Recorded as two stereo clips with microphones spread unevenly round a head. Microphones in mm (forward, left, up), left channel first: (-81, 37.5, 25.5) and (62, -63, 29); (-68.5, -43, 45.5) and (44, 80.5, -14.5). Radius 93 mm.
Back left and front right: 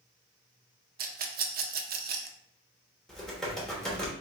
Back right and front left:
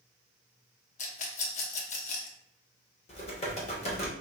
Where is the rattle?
75° right, 0.5 m.